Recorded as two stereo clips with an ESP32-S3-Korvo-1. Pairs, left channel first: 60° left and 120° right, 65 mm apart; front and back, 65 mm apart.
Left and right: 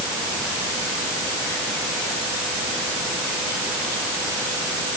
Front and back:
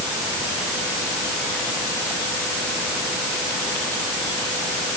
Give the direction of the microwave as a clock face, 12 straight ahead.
I don't hear a microwave.